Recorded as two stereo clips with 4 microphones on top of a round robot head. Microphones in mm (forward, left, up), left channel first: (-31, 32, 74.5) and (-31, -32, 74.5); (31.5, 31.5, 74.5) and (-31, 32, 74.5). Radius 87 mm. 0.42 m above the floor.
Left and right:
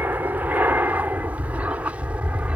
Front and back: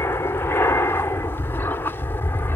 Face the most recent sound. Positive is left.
turn(degrees=-30)